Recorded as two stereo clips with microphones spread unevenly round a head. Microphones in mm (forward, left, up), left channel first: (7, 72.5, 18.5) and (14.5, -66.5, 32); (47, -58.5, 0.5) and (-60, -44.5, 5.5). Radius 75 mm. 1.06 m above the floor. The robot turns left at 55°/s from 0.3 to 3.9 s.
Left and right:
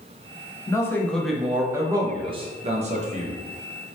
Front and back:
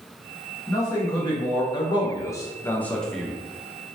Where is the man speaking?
45° left, 0.6 m; by 3.3 s 105° right, 0.6 m.